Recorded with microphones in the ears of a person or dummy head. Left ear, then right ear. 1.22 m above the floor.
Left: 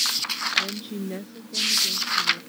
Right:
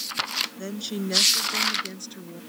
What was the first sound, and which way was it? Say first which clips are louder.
A woman speaking: left 4 dB; 80° right.